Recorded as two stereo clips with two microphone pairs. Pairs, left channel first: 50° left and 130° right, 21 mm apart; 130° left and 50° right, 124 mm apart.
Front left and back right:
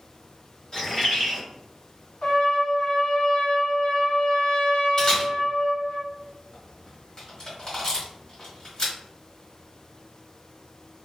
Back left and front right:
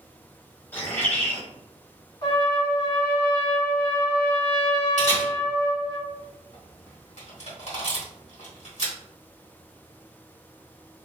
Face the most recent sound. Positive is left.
turn(degrees=105)